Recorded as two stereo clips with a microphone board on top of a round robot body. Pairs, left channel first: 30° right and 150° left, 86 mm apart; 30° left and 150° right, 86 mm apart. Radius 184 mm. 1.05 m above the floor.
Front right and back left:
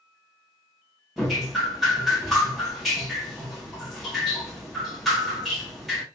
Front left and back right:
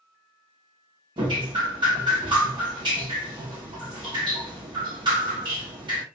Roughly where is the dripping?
Behind right.